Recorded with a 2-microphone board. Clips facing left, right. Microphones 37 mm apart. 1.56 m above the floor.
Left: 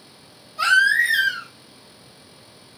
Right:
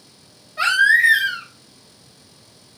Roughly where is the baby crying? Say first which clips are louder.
Right 2 dB; right.